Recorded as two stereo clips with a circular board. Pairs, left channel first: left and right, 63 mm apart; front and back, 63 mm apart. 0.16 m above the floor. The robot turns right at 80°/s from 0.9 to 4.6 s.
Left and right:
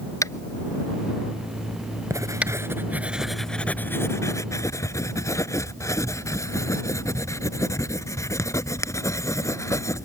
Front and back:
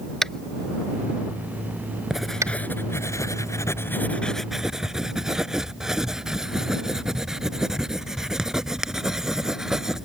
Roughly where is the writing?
Right.